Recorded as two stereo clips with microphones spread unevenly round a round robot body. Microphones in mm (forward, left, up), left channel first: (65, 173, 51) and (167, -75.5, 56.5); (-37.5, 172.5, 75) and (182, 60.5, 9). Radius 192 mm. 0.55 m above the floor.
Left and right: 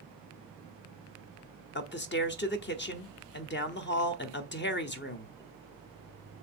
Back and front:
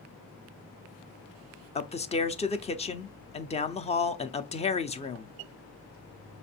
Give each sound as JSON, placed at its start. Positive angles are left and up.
{"t": 1.8, "sound": "a man speaking", "azimuth_deg": 75, "distance_m": 0.8}